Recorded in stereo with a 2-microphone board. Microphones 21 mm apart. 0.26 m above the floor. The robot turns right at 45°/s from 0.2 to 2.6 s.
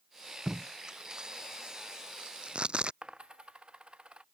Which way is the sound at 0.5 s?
20° right (ahead or behind).